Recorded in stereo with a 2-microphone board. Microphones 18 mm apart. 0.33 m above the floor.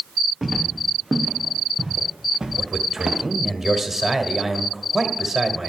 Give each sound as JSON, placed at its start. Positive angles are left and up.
{"t": 0.4, "sound": "footsteps", "side_deg": -10, "distance_m": 4.0}
{"t": 2.6, "sound": "a man speaking", "side_deg": -15, "distance_m": 1.5}